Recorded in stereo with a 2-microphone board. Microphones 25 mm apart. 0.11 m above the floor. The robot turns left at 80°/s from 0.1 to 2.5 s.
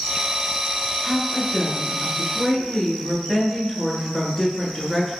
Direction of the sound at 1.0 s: 20° left (ahead or behind).